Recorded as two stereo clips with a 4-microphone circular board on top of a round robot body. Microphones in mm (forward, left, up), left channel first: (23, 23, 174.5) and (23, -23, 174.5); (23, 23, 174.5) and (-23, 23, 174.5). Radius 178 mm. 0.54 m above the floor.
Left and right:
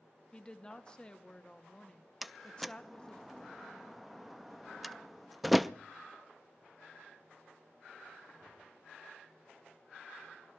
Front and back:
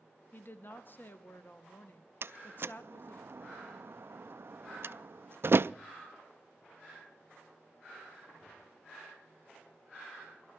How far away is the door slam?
About 0.5 m.